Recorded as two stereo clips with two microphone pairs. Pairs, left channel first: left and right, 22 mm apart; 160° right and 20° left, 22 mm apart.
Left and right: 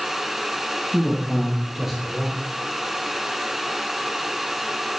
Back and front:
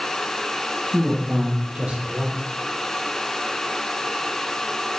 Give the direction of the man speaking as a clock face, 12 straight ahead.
1 o'clock.